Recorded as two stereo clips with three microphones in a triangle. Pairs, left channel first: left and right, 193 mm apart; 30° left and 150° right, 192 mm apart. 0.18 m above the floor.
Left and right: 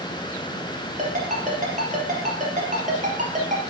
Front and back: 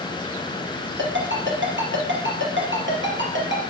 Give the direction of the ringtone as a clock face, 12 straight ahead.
5 o'clock.